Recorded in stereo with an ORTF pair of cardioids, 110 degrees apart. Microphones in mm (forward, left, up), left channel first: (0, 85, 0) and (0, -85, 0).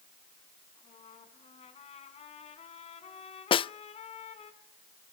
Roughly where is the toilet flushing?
No toilet flushing in this recording.